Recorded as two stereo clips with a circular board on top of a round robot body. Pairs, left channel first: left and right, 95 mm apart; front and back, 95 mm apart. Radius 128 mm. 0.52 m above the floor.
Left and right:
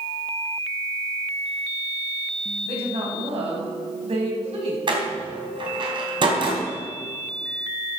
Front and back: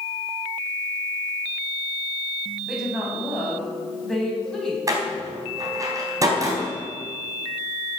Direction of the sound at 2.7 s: 95° right.